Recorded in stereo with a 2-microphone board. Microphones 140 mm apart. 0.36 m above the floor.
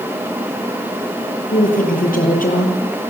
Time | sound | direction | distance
1.5 | a woman speaking | 75° left (ahead or behind) | 7.5 m